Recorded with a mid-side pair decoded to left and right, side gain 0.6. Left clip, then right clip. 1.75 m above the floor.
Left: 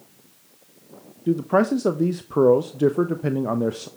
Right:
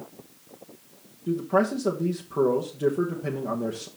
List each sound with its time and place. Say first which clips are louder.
1.3 s a man speaking: left 4 dB; 40° left, 0.8 m